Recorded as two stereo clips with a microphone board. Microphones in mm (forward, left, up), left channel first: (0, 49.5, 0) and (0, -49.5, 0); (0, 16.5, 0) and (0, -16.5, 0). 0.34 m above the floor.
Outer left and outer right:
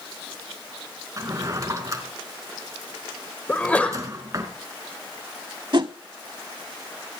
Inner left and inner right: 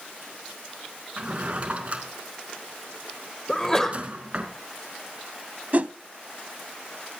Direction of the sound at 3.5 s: 15° left (ahead or behind).